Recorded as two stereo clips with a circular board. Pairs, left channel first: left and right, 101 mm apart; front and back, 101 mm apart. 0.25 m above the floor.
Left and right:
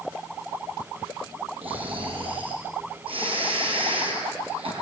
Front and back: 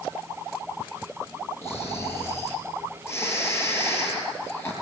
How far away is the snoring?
About 6 m.